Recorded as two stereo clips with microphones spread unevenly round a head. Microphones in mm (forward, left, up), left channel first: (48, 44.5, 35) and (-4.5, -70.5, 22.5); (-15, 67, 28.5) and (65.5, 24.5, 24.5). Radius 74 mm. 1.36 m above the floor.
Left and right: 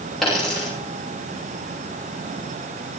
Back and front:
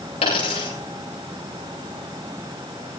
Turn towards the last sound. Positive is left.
turn(degrees=155)